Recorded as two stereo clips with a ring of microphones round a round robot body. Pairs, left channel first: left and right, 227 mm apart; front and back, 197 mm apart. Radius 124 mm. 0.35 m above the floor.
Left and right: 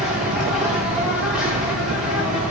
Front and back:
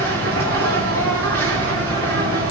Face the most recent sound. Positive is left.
turn(degrees=-175)